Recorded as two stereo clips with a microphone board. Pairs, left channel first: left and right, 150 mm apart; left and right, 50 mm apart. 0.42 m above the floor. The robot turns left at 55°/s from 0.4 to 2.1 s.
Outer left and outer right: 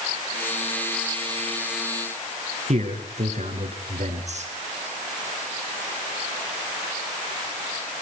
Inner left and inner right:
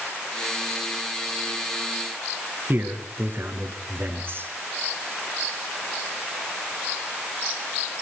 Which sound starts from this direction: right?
A man speaking, at 2.7 s.